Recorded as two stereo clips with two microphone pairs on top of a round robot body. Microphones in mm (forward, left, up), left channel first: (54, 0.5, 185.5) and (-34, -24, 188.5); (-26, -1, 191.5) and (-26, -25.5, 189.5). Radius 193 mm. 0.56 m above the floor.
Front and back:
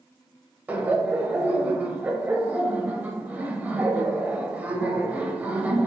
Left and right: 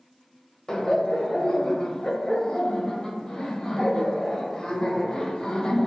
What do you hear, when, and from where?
0.7 s laughter: 140° left, 1.1 m